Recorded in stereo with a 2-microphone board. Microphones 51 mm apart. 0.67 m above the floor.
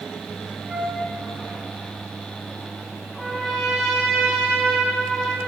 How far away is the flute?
About 6.5 m.